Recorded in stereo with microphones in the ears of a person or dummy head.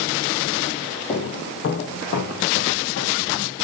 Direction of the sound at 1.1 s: 40° left (ahead or behind).